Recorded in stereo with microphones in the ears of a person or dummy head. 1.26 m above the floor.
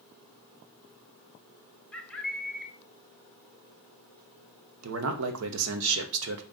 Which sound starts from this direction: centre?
A bird, at 1.9 s.